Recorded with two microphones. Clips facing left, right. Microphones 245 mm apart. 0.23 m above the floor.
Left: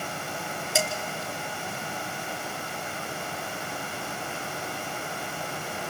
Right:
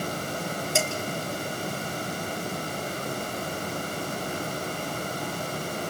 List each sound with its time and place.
0.8 s dishes clattering: 5° left (ahead or behind), 2.5 m